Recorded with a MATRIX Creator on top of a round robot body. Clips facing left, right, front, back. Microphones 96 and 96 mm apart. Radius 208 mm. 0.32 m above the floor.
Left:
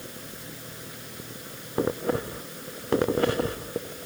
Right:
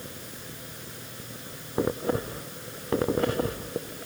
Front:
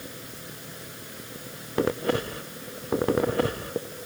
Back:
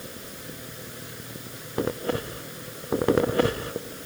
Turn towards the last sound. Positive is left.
No sound to turn to.